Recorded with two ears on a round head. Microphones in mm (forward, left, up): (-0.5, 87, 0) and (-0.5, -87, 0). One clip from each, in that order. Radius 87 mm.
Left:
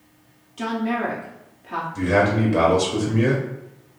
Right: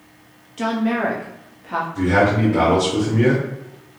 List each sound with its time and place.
0.6 s a woman speaking: 5° right (ahead or behind), 0.5 m
1.9 s a man speaking: 35° left (ahead or behind), 0.7 m